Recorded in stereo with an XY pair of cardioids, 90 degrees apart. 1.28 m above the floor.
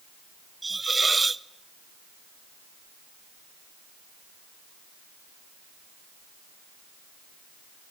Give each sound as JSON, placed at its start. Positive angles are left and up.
{"t": 0.6, "sound": "a hiss", "azimuth_deg": -25, "distance_m": 0.7}